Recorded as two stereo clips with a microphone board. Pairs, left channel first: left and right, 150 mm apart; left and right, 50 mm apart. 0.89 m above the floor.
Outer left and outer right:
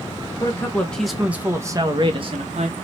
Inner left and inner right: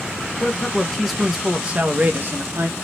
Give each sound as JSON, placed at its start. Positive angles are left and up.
{"t": 0.4, "sound": "a man speaking", "side_deg": 20, "distance_m": 1.0}